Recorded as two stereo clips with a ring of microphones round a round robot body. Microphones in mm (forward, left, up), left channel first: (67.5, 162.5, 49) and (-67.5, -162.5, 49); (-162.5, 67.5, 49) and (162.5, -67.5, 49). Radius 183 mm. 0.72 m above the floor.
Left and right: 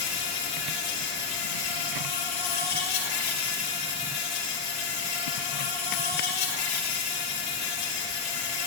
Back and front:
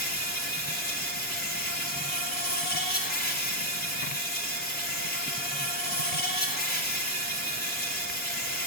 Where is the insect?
95° left, 2.5 m.